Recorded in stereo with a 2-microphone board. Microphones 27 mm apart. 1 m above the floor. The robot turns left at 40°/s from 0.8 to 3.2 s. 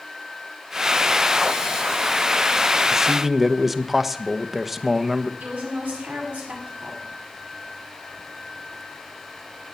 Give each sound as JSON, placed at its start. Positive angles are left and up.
{"t": 2.9, "sound": "a man speaking", "side_deg": -15, "distance_m": 1.0}
{"t": 5.4, "sound": "a woman speaking", "side_deg": -85, "distance_m": 8.0}